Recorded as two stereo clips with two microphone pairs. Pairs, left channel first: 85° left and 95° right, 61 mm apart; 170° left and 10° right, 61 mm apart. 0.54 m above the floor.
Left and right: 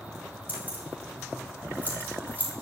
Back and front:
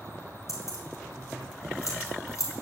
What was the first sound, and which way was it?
Keys jangling, 160° right.